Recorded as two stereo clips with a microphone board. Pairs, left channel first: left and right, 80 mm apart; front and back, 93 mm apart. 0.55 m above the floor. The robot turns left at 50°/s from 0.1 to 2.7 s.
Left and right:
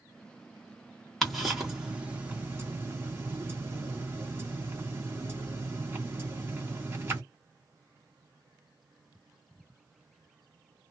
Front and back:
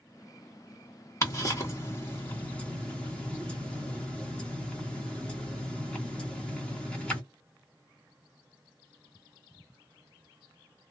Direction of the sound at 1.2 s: 5° left.